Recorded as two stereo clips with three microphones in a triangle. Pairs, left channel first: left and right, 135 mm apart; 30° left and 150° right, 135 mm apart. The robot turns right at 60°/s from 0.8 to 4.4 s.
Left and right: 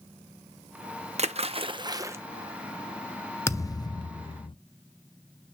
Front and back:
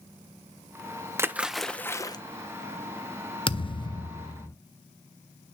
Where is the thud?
30° left, 0.6 m; by 4.5 s 90° left, 0.6 m.